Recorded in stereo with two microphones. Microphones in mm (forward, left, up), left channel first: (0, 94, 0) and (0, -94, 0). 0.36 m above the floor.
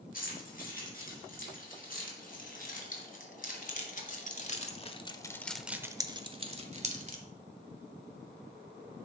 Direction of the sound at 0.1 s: 45° left (ahead or behind).